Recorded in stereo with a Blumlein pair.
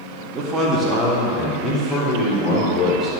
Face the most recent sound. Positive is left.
turn(degrees=10)